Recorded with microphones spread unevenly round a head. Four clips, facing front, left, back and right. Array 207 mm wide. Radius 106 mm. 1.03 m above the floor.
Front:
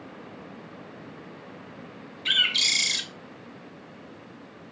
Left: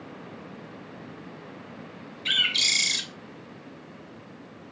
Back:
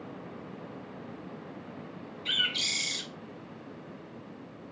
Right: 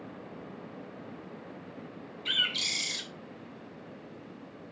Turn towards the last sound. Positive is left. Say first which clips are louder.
# left 5 dB, front 5 dB
turn(degrees=40)